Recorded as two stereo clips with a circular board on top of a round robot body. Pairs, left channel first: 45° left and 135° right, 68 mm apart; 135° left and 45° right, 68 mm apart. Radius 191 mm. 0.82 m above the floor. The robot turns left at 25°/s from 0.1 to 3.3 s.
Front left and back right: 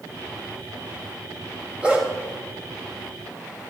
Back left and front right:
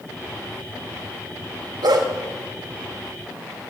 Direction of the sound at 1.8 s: 60° right.